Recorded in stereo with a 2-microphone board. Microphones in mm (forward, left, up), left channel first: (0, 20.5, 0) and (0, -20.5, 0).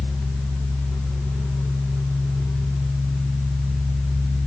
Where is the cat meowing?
No cat meowing in this recording.